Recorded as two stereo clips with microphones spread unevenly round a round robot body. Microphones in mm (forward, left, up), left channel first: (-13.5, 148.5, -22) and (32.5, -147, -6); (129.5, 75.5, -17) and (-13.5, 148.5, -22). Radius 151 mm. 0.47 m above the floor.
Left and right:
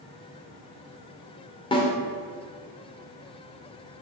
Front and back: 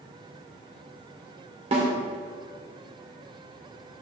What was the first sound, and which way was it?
A snare drum, 160° left.